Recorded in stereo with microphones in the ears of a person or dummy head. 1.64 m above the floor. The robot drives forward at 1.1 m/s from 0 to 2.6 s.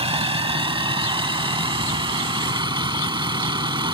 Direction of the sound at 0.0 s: 30° right (ahead or behind).